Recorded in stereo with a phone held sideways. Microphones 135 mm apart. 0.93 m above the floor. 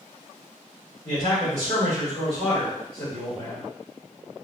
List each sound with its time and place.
1.1 s a man speaking: 50° left (ahead or behind), 2 m